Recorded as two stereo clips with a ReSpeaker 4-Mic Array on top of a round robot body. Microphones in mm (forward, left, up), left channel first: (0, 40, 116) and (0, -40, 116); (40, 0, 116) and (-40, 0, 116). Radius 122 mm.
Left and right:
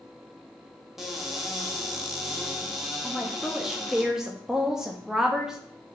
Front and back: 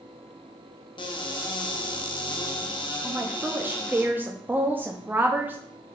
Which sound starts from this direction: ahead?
A cupboard door, at 1.0 s.